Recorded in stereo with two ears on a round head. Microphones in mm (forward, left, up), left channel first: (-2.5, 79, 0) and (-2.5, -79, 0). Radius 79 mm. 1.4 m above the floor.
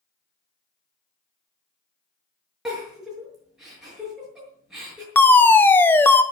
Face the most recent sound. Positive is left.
turn(degrees=10)  # may be behind; listen again after turning